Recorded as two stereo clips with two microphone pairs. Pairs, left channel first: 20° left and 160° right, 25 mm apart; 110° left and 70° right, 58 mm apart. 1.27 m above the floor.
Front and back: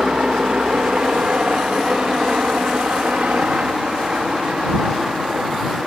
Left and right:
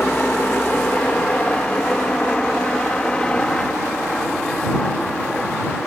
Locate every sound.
0.0 s a helicopter: 170° left; by 5.9 s 175° right